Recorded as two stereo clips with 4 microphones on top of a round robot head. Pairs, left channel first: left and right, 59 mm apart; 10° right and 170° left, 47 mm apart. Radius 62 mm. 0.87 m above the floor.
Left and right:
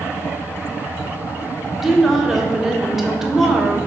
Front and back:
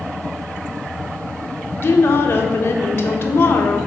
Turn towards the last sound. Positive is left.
turn(degrees=-5)